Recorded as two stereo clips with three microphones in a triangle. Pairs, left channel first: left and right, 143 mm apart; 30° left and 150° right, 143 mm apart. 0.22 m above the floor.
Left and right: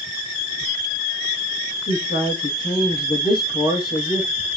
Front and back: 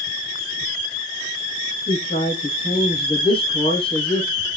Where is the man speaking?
85° left, 7.5 m.